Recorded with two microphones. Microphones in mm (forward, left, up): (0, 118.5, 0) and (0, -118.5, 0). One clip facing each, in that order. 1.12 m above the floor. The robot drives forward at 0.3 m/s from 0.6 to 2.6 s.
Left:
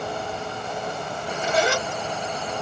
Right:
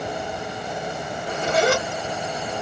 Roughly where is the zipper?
Right.